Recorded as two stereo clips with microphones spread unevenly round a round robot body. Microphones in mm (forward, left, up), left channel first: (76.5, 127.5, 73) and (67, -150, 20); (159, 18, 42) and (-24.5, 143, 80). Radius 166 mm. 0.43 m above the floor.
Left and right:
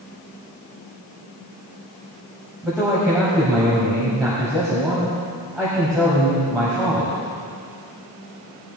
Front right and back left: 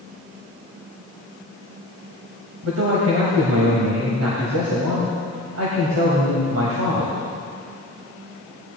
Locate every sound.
2.6 s a man speaking: straight behind, 2 m